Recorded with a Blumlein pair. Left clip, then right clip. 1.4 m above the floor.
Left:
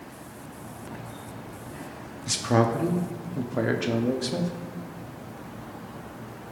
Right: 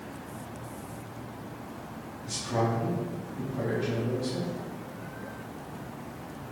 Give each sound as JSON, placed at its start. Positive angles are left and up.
{"t": 2.3, "sound": "a man speaking", "azimuth_deg": 35, "distance_m": 0.6}